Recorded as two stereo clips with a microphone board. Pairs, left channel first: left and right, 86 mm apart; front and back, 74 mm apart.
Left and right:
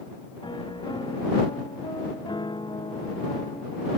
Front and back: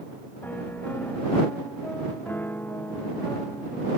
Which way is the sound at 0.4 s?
65° left.